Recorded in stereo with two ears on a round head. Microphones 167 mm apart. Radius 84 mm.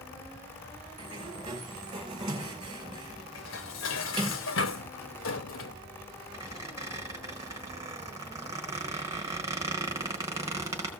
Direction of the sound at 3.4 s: 75° left (ahead or behind).